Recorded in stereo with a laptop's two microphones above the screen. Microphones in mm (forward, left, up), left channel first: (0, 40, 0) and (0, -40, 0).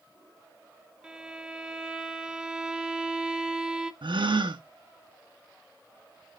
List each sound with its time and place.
1.0 s a violin: 10° right (ahead or behind), 0.5 m
4.0 s a gasp: 80° right, 1.0 m